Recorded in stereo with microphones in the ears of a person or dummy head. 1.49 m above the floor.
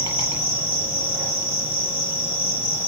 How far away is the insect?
About 6 m.